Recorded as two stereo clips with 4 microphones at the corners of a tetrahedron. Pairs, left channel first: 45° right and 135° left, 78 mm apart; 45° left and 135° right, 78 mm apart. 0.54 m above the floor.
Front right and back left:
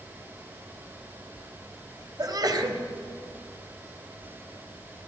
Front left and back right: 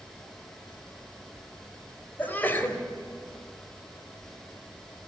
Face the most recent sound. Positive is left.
turn(degrees=110)